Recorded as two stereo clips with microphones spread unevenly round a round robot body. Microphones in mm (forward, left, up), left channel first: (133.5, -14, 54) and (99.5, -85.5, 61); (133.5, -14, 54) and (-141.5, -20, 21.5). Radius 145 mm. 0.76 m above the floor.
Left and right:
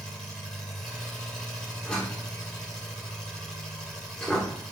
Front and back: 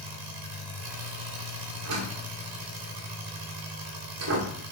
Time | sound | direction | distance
0.0 | an engine running | straight behind | 2 m
1.9 | a door slam | 145° left | 1.7 m